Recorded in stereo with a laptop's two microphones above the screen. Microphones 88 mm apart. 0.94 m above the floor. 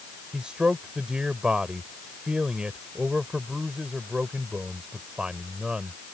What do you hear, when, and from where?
0.3 s a man speaking: 10° right (ahead or behind)